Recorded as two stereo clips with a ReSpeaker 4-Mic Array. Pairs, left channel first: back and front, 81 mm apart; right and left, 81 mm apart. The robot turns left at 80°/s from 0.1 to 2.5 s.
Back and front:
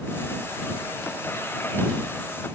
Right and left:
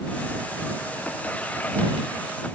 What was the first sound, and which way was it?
Only background noise.